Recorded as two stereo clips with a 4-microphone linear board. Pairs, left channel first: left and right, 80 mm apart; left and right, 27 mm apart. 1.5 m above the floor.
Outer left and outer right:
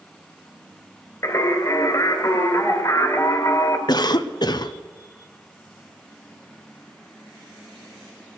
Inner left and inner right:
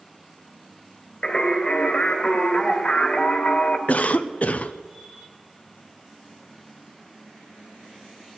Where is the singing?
40° left (ahead or behind), 1.9 m.